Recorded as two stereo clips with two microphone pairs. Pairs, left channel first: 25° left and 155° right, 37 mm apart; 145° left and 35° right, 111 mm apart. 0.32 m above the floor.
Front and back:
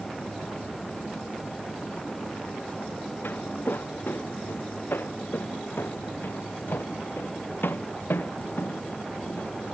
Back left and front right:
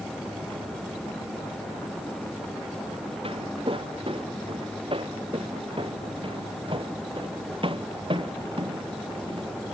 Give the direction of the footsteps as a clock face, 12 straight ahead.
12 o'clock.